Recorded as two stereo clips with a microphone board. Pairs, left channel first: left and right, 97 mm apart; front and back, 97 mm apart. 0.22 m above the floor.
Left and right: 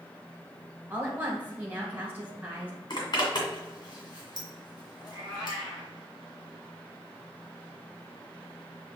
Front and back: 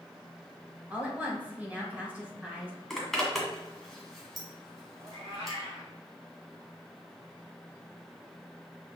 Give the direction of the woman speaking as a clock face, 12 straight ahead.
4 o'clock.